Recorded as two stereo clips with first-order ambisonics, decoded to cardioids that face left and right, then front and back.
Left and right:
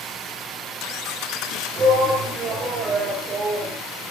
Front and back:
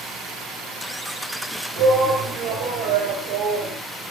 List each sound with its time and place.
1.8 s a shout: 160° right, 4.5 m